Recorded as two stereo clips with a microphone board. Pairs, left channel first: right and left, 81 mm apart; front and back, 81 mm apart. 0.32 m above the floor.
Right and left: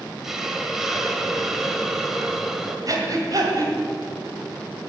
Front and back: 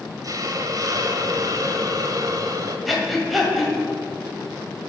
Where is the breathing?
90° left, 1.9 m.